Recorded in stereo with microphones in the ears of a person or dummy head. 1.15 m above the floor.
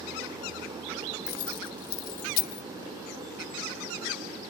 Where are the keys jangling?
50° left (ahead or behind).